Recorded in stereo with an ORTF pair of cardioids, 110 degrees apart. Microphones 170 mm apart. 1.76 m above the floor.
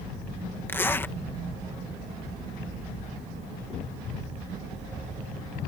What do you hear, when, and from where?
0.7 s a zipper: 15° left